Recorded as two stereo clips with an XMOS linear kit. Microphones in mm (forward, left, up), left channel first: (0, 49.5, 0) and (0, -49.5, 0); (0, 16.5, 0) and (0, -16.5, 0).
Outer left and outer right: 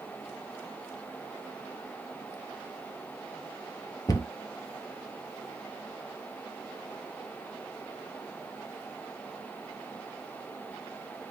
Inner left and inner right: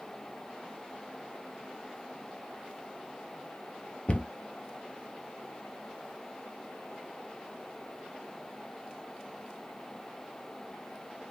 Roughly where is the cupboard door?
Left.